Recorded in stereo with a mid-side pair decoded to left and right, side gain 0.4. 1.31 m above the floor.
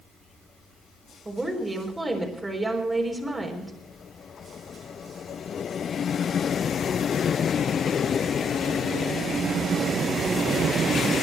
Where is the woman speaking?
20° right, 4 m.